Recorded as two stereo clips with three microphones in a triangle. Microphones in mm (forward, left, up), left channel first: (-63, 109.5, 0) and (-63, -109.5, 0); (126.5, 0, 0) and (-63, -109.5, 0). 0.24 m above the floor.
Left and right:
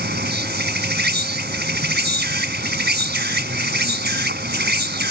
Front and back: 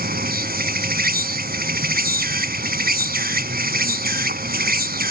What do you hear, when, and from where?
0.0 s an insect: 115° right